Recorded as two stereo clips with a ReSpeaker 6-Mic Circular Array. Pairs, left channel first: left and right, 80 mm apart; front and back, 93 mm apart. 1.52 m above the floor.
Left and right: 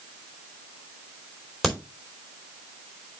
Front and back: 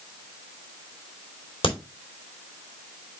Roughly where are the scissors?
No scissors in this recording.